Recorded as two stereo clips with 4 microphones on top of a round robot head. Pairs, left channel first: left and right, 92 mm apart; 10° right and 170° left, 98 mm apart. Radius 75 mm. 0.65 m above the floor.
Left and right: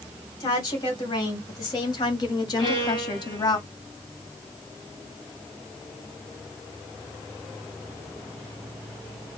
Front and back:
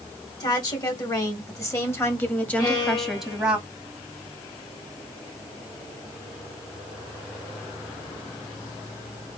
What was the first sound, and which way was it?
A woman speaking, 35° left.